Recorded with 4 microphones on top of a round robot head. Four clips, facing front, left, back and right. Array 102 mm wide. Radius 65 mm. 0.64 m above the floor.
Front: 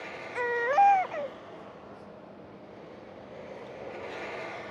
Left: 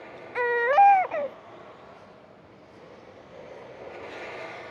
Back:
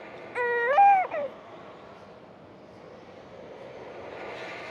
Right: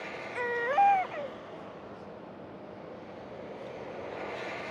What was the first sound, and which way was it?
A baby crying, 115° left.